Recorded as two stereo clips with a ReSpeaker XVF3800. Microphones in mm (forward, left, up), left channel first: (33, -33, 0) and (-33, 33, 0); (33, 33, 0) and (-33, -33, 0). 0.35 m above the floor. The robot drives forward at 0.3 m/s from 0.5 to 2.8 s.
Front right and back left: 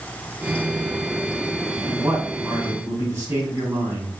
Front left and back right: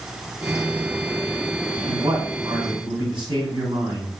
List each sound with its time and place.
1.9 s a man speaking: 160° right, 3 m